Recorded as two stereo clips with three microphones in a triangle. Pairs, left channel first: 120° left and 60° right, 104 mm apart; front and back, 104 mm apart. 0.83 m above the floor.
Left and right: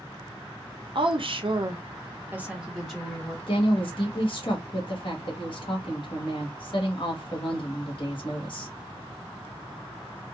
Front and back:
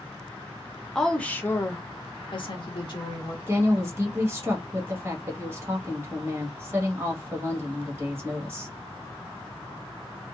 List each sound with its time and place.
0.9 s a woman speaking: 85° right, 0.8 m; by 3.4 s 40° left, 1.0 m
3.5 s a woman speaking: 120° left, 1.3 m